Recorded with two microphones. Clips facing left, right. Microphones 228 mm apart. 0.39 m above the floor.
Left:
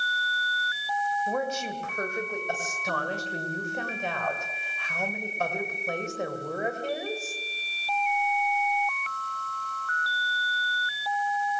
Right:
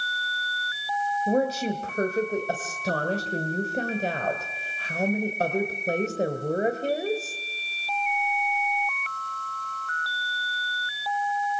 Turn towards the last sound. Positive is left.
turn(degrees=-35)  # may be behind; listen again after turning